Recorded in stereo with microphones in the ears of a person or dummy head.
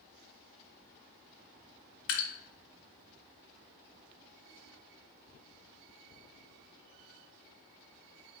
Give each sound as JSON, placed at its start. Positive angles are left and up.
{"t": 2.1, "sound": "dripping", "side_deg": 65, "distance_m": 0.9}